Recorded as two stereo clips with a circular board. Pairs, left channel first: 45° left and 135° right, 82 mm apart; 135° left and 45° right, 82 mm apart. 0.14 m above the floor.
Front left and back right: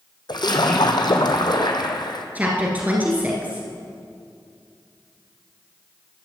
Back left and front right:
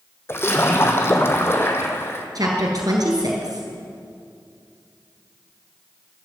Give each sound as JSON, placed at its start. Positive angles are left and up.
{"t": 0.3, "sound": "a splash", "azimuth_deg": 75, "distance_m": 1.3}
{"t": 2.4, "sound": "a woman speaking", "azimuth_deg": -65, "distance_m": 2.0}